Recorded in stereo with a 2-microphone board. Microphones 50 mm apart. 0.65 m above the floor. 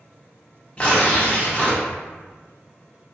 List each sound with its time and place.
0.8 s tearing paper: 25° left (ahead or behind), 0.7 m